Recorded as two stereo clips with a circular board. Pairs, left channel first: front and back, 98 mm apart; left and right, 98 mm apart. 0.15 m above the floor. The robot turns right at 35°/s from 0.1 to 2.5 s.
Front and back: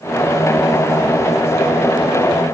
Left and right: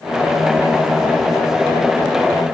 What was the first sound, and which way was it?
Only background noise.